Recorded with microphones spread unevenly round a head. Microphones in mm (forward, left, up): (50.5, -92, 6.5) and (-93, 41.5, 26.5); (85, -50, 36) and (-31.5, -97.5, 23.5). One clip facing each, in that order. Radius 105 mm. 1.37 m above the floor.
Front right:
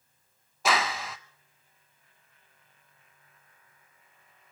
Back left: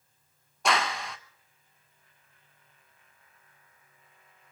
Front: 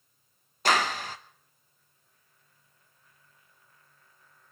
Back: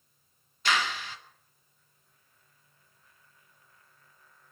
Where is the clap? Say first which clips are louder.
Even, front 4 dB; 50° left, 0.6 m.